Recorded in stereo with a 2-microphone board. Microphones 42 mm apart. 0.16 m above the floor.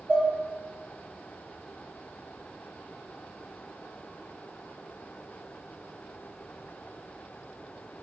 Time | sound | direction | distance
0.1 | dishes clattering | 50° right (ahead or behind) | 1.9 m